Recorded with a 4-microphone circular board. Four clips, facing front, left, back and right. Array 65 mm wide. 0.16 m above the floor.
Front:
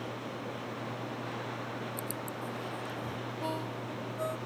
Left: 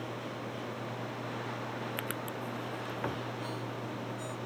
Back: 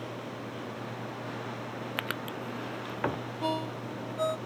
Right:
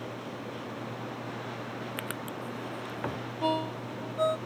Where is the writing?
175° right.